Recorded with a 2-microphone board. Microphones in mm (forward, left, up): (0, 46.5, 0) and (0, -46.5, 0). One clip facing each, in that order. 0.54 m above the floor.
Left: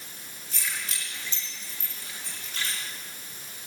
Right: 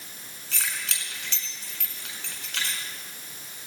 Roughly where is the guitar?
I don't hear a guitar.